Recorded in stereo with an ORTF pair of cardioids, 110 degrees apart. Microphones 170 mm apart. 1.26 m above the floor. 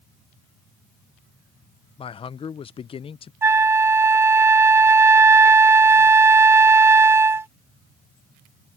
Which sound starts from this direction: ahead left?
A man speaking, at 2.0 s.